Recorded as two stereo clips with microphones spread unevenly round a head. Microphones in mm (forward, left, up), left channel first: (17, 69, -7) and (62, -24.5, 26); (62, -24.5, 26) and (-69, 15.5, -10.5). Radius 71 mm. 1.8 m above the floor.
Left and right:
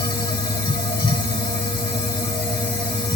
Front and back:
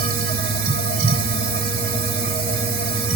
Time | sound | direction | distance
0.0 | a machine running | 175° left | 2 m